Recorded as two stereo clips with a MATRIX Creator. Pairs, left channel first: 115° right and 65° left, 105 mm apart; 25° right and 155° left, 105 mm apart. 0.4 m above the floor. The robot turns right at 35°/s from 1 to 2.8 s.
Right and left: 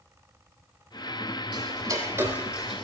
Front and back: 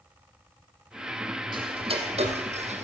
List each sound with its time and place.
1.5 s ticking: 110° left, 2.5 m; by 2.8 s 155° left, 2.5 m